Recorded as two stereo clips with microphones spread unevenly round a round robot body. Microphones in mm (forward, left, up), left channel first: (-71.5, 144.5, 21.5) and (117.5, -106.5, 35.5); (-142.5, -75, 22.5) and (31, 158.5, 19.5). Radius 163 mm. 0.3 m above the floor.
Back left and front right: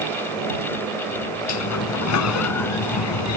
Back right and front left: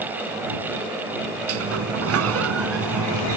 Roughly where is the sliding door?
Left.